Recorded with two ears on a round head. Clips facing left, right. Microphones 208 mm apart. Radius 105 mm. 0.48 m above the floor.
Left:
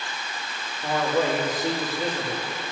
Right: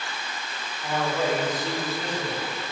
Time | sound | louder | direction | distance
0.8 | a man speaking | left 3 dB | 60° left (ahead or behind) | 3 m